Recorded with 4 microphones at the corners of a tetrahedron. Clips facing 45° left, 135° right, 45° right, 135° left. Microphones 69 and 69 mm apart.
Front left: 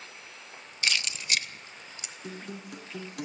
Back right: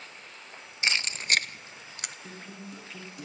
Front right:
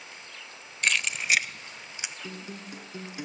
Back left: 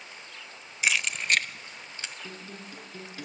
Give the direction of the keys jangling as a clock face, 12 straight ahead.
5 o'clock.